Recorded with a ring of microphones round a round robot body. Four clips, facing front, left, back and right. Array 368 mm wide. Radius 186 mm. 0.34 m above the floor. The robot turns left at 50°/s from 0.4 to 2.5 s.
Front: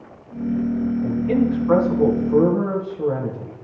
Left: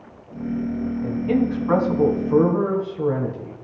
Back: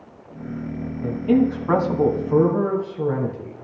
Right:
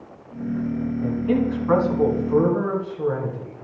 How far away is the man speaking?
About 2.5 m.